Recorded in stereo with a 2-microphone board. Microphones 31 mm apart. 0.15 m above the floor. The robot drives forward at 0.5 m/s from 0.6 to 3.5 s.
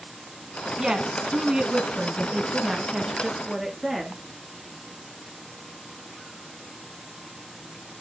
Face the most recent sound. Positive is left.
turn(degrees=-15)  # may be behind; listen again after turning